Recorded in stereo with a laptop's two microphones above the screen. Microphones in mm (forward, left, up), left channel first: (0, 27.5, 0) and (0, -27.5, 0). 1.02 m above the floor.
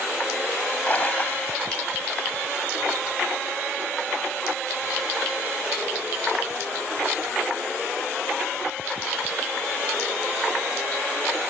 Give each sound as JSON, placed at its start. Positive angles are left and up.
{"t": 0.9, "sound": "a splash", "side_deg": 30}